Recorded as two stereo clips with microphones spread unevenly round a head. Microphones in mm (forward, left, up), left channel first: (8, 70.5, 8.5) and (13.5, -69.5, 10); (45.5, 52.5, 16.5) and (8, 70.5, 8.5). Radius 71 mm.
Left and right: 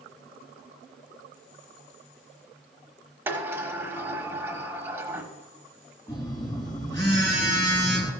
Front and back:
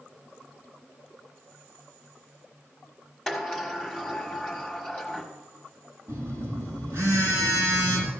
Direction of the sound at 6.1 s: 165° left.